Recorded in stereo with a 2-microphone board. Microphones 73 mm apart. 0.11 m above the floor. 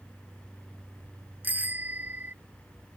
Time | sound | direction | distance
1.4 | a bicycle bell | 20° right (ahead or behind) | ?